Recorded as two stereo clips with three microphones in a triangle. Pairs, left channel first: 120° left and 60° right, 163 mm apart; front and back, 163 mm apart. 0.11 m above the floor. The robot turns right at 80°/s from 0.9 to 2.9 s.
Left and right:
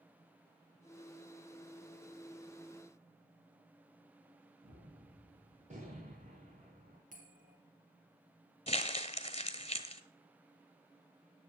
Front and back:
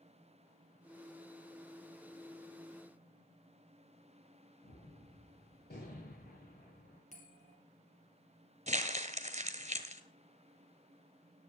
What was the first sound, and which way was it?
A gunshot, 20° right.